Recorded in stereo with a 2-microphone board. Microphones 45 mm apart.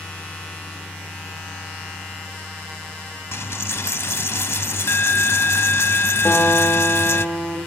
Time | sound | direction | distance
3.3 | a dropped coin | 60° left (ahead or behind) | 0.6 m
6.2 | a guitar | 20° left (ahead or behind) | 6 m